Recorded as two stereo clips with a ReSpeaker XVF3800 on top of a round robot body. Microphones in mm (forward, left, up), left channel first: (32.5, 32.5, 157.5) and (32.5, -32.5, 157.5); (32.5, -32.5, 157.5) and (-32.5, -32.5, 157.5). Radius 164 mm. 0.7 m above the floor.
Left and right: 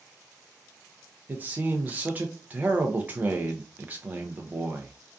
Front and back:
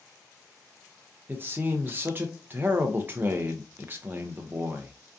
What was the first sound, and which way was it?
A man speaking, 140° right.